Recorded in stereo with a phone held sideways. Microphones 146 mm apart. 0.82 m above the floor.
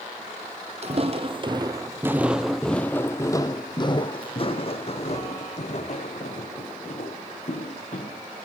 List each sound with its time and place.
0.8 s footsteps: 50° right (ahead or behind), 1.1 m; by 8.2 s 55° left (ahead or behind), 3.5 m